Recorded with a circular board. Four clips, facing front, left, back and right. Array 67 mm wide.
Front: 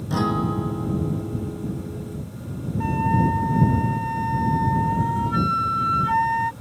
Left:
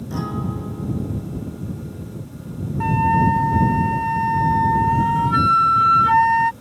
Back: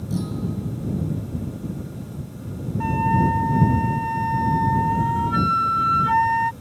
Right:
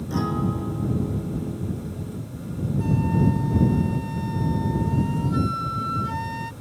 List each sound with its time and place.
0.1 s a guitar: straight ahead
2.8 s a flute: 100° left